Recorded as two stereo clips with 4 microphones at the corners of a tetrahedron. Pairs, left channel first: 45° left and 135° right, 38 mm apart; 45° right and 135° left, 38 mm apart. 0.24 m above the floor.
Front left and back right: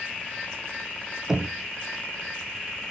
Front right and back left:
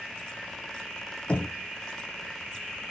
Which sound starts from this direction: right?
Knocking, at 1.3 s.